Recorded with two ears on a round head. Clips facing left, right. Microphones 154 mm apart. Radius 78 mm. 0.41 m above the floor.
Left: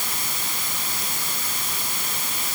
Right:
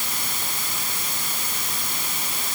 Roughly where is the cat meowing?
No cat meowing in this recording.